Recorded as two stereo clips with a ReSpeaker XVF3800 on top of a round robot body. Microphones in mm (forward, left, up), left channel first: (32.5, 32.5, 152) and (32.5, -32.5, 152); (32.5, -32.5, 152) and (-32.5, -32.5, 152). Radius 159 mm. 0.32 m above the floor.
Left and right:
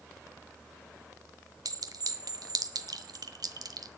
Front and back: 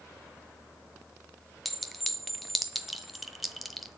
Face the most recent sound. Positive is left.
turn(degrees=-90)